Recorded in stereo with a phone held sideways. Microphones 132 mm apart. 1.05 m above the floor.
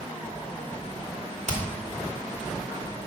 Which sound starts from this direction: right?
Hammering, at 1.5 s.